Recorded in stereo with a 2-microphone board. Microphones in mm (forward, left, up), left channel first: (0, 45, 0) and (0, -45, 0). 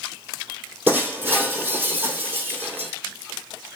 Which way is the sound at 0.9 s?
20° right (ahead or behind).